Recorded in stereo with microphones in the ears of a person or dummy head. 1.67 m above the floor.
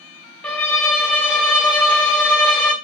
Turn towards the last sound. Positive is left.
turn(degrees=10)  # may be behind; listen again after turning